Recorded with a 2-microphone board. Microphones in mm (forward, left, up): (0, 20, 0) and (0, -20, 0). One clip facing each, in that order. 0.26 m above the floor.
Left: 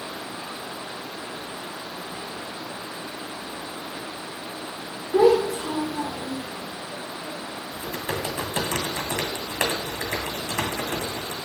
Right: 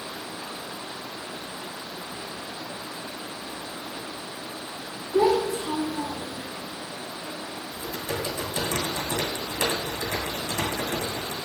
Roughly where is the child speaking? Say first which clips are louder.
Left 4 dB; left.